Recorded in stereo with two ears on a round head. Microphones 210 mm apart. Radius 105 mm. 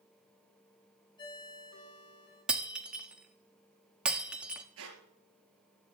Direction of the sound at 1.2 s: 20° left (ahead or behind).